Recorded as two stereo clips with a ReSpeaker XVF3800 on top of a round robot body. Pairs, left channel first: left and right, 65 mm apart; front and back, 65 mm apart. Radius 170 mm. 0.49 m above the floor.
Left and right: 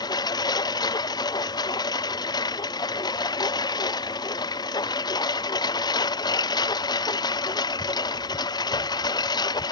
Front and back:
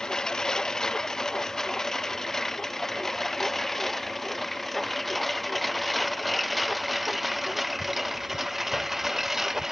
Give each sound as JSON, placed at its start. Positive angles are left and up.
{"t": 0.0, "sound": "a lawn mower", "azimuth_deg": 80}